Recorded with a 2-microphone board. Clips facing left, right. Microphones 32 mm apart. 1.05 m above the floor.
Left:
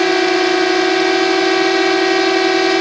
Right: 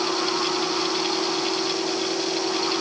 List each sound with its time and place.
0.0 s a drone: 65° left (ahead or behind)